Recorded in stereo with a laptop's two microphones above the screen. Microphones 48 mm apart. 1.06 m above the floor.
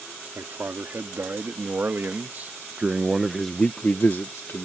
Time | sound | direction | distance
0.3 | a man speaking | 55° right (ahead or behind) | ?